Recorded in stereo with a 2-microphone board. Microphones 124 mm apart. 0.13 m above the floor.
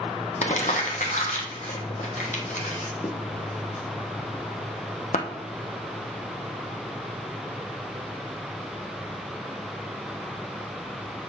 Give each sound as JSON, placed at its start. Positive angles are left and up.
{"t": 0.4, "sound": "crumpling", "side_deg": 80, "distance_m": 1.0}